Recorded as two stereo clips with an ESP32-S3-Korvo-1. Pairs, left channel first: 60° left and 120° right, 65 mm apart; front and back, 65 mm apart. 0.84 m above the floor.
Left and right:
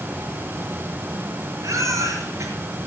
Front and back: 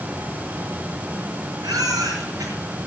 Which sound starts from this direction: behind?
A baby crying, at 1.6 s.